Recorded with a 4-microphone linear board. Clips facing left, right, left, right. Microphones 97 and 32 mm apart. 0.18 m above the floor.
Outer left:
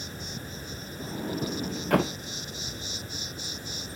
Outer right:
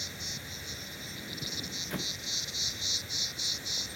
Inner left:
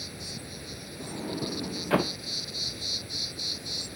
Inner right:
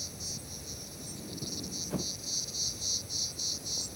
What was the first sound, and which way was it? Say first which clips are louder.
An insect: outer left 6 dB, inner left 3 dB; 45° left (ahead or behind).